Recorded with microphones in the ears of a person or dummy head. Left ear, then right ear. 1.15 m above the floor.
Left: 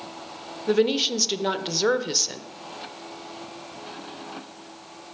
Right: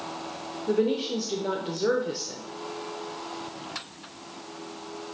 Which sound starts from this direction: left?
A woman speaking, at 0.7 s.